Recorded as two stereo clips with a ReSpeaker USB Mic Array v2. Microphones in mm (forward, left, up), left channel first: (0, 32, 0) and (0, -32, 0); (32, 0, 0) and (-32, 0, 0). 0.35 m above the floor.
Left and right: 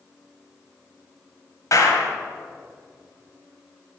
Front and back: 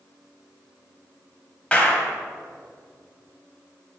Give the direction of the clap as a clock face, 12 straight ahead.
10 o'clock.